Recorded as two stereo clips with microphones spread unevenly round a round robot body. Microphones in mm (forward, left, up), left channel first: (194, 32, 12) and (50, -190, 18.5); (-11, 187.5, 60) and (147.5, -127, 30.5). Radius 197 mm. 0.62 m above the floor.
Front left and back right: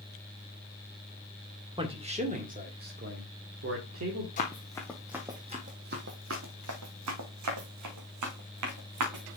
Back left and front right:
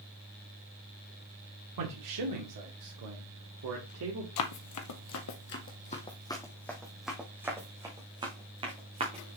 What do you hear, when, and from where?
1.8 s a man speaking: 50° right, 2 m; by 4.3 s 110° right, 1.9 m
4.4 s running footsteps: 120° left, 0.9 m; by 9.4 s 140° right, 2.5 m